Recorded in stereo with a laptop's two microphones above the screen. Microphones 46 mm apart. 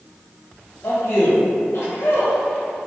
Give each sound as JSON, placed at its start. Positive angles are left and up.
{"t": 0.8, "sound": "a man speaking", "side_deg": 60, "distance_m": 1.1}